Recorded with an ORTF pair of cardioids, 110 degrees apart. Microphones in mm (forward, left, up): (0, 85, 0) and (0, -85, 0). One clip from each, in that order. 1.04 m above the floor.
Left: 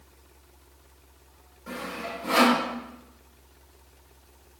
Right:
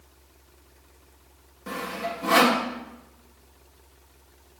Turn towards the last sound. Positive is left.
turn(degrees=-55)